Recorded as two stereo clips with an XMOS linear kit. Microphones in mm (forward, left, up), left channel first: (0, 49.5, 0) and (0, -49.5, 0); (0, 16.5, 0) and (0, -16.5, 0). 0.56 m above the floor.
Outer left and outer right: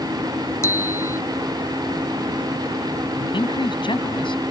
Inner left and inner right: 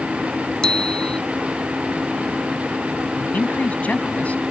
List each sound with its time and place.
0.6 s a bicycle bell: 30° left (ahead or behind)
3.2 s a man speaking: 55° left (ahead or behind)